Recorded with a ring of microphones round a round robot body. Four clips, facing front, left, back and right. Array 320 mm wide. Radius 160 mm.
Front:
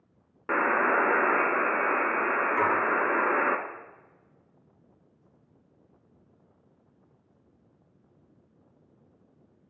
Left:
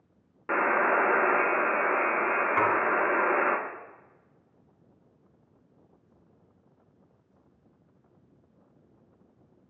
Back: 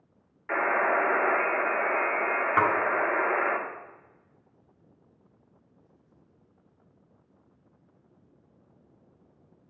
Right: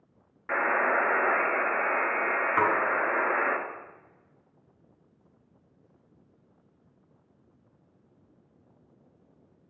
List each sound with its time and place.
0.5 s a buzzer: 30° left, 0.8 m
2.6 s dishes clattering: straight behind, 1.3 m